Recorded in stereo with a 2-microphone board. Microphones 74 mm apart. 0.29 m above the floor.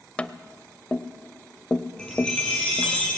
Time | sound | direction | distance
0.2 | tapping | 15° left (ahead or behind) | 0.7 m
2.0 | a chime | 10° left (ahead or behind) | 6.5 m